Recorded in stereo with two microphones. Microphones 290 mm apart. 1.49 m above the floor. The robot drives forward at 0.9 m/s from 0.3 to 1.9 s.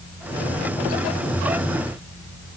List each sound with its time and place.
Only background noise.